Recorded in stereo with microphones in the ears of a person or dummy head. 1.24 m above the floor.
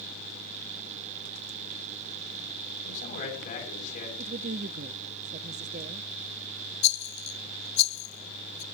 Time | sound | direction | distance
2.8 | a man speaking | 50° left (ahead or behind) | 8.5 m
4.2 | a woman speaking | 40° right (ahead or behind) | 0.5 m
6.8 | a rattle | 40° left (ahead or behind) | 1.0 m